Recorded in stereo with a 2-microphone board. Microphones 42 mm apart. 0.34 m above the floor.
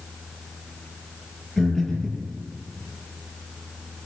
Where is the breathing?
20° left (ahead or behind), 7.5 m.